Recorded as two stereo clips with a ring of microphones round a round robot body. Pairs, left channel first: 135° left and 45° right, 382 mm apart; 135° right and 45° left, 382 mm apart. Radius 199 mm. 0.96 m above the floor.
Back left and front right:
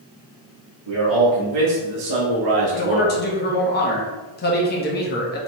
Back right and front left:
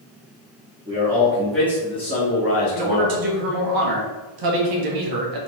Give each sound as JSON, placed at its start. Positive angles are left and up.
{"t": 0.9, "sound": "a man speaking", "azimuth_deg": -30, "distance_m": 2.0}
{"t": 2.7, "sound": "a man speaking", "azimuth_deg": 70, "distance_m": 1.2}